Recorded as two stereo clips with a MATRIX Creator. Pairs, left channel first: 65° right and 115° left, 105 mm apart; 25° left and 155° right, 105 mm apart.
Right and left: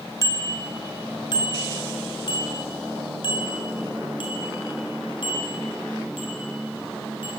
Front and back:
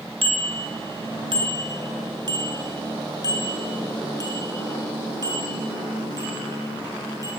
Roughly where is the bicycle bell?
Behind right.